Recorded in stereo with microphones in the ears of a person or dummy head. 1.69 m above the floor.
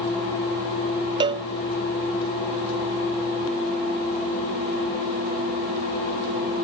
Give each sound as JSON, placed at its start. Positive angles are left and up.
{"t": 1.2, "sound": "a cowbell", "side_deg": -30}